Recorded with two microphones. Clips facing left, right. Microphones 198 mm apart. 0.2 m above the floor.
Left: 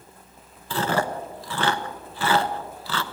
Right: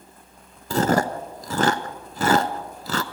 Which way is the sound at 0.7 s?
45° right (ahead or behind).